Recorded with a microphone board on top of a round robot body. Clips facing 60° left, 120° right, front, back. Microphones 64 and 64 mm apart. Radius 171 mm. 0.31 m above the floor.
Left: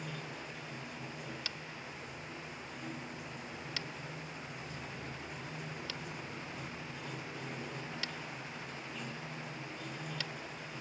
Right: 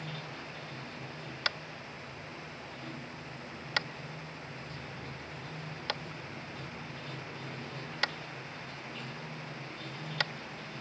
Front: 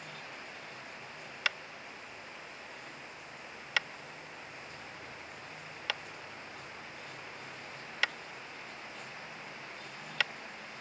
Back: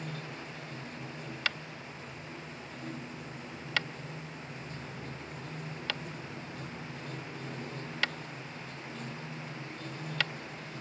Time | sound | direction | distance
0.0 | running water | 140° left | ?
1.4 | tapping | 85° right | ?